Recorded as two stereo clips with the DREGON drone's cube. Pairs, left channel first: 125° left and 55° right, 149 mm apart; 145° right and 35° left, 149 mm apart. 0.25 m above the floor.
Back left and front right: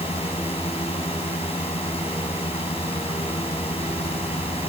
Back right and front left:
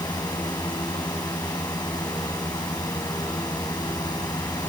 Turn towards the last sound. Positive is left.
turn(degrees=160)